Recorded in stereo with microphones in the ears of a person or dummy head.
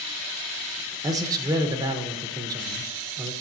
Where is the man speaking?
20° right (ahead or behind), 0.9 m.